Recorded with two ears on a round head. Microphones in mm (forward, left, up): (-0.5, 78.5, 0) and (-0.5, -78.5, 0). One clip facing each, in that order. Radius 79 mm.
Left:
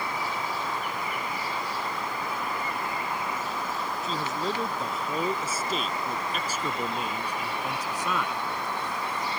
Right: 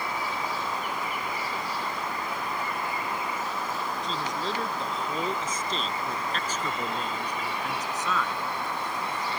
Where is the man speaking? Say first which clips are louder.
Left 3 dB; 5° left (ahead or behind); by 8.4 s 10° left (ahead or behind).